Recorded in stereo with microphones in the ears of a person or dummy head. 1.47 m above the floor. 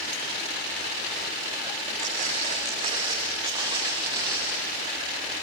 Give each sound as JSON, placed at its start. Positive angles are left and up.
{"t": 2.0, "sound": "footsteps", "side_deg": -45, "distance_m": 6.0}